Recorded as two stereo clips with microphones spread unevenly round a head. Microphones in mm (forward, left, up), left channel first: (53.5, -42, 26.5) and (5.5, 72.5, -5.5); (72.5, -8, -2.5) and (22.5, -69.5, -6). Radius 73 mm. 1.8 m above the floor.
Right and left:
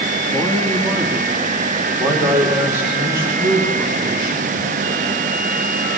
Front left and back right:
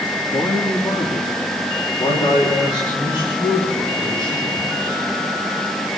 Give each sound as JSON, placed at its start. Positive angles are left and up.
{"t": 0.3, "sound": "a man speaking", "azimuth_deg": 15, "distance_m": 3.0}